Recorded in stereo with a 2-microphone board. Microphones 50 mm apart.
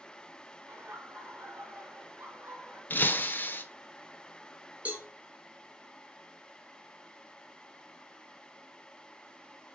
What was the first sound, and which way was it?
Laughter, 65° right (ahead or behind).